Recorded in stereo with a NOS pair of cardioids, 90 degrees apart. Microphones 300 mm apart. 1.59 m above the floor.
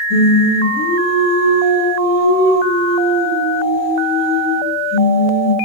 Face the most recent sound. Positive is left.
turn(degrees=60)